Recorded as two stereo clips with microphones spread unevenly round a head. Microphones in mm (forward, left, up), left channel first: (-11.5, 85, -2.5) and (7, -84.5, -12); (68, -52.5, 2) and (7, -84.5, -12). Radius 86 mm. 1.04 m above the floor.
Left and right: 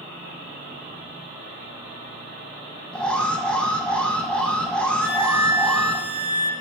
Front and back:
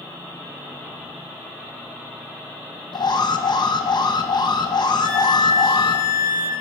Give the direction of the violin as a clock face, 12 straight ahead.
5 o'clock.